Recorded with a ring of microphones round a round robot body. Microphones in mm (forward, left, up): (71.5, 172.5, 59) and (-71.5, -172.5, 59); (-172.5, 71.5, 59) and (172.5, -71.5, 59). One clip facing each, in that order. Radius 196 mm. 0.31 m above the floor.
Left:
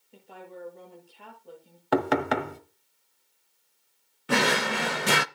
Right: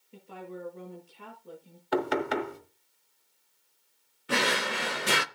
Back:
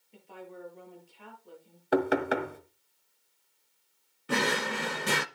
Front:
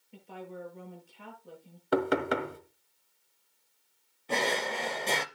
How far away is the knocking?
About 1.6 m.